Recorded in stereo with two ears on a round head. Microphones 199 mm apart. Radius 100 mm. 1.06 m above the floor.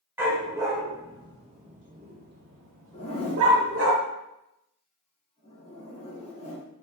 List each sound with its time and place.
0.2 s a dog barking: 10° right (ahead or behind), 2.5 m; by 3.9 s 70° right (ahead or behind), 1.6 m
2.9 s a zipper: 30° left (ahead or behind), 2.5 m